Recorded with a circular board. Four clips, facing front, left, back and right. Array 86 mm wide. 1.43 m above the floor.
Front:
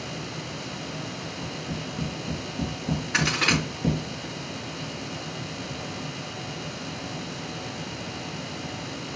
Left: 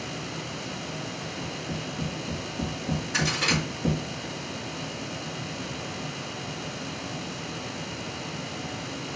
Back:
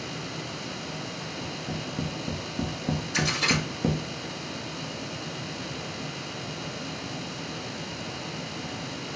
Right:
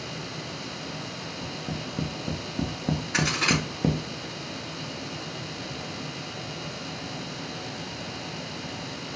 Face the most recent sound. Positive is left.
turn(degrees=-15)